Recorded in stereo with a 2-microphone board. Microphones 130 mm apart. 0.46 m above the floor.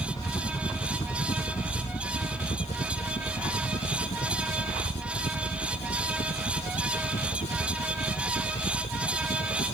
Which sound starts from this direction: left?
A helicopter, at 0.0 s.